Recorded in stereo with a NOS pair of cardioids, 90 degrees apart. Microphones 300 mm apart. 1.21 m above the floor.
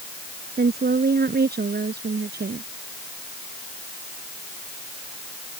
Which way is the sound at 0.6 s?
30° right.